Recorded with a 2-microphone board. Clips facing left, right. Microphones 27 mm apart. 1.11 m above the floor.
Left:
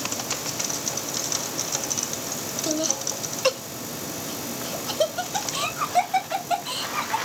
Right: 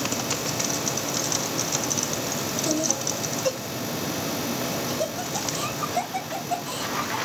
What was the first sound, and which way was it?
Laughter, 15° left (ahead or behind).